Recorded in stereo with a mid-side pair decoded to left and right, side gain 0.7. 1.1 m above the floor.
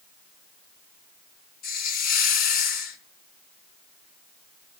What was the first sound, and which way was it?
A hiss, 60° left.